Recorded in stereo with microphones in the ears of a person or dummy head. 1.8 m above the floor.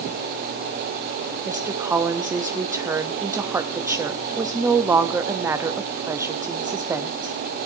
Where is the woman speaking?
15° right (ahead or behind), 0.7 m.